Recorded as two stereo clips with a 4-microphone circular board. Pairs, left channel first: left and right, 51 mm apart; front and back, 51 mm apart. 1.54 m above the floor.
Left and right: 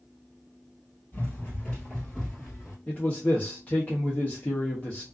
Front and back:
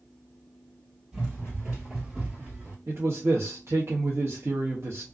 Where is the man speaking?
150° left, 0.7 m.